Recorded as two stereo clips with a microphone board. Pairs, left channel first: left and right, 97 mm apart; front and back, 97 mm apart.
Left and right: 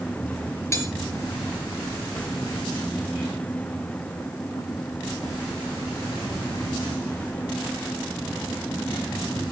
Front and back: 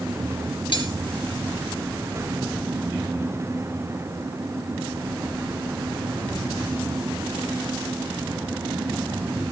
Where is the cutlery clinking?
30° left, 3.5 m.